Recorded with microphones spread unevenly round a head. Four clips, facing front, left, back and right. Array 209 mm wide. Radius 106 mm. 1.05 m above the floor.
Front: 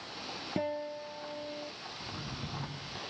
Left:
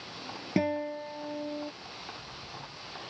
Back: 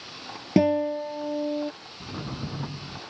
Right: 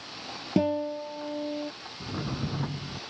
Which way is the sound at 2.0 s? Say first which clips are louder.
Right 16 dB, back 9 dB; 115° right.